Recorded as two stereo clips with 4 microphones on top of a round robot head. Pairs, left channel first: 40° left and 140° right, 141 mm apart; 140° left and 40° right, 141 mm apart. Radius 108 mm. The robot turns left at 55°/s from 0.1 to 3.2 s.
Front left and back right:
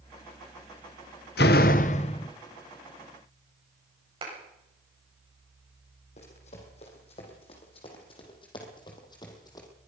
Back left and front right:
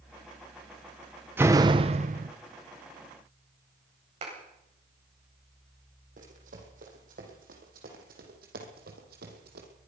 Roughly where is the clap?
Right.